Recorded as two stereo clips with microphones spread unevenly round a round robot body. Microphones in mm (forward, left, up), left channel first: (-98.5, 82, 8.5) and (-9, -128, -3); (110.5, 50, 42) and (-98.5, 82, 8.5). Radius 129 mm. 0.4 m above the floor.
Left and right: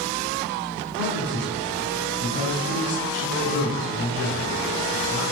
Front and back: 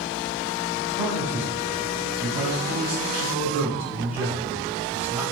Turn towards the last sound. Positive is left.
turn(degrees=95)